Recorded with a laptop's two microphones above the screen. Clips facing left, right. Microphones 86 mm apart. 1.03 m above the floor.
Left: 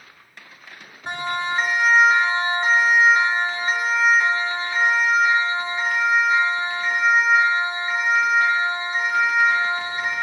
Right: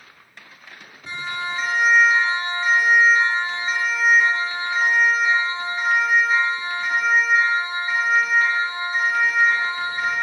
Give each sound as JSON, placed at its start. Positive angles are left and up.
{"t": 1.1, "sound": "a siren", "side_deg": 60, "distance_m": 3.0}